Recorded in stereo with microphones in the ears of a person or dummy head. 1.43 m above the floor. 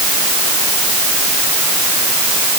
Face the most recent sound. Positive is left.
No sound to turn to.